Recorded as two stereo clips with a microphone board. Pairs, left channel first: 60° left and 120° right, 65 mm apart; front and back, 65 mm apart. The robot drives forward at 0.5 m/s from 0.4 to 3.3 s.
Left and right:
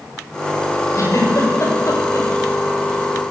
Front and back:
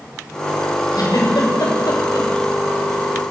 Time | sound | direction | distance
0.9 | a giggle | 20° left | 6.5 m